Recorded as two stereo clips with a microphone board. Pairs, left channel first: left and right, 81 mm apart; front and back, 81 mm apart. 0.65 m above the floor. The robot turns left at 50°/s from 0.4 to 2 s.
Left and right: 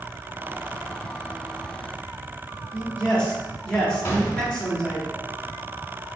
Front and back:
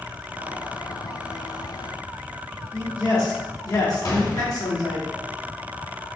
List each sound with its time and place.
2.7 s a man speaking: 15° left, 1.7 m
4.0 s a gunshot: 35° left, 1.0 m